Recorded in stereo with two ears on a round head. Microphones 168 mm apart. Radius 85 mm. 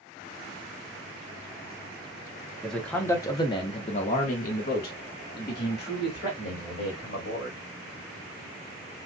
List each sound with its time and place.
2.6 s a man speaking: centre (ahead or behind), 0.9 m; by 7.7 s 55° left (ahead or behind), 2.5 m